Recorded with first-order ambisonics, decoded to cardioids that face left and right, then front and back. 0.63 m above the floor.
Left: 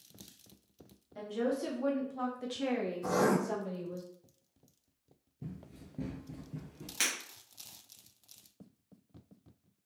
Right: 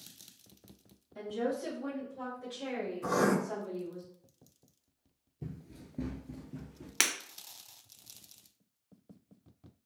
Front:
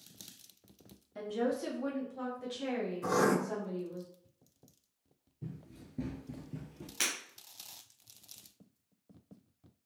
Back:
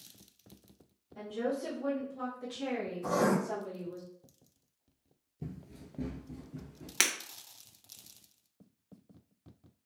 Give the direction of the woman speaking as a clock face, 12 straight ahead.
12 o'clock.